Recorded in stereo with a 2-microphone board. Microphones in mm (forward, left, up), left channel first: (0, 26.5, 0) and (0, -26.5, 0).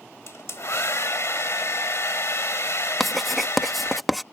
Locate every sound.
0.3 s a hair dryer: 60° left (ahead or behind)
3.0 s writing: centre (ahead or behind)